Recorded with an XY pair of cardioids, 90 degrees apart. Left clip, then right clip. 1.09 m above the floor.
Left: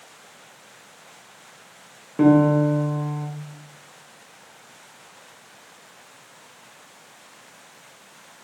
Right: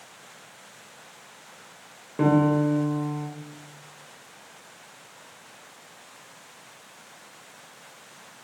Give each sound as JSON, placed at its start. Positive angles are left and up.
{"t": 2.2, "sound": "a piano", "azimuth_deg": 15, "distance_m": 1.1}